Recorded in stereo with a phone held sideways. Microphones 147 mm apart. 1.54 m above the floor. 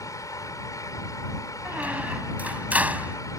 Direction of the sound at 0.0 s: 20° left (ahead or behind).